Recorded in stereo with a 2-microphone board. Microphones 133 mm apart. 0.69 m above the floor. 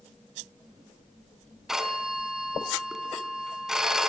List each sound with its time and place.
1.7 s a phone ringing: 5° right (ahead or behind), 3 m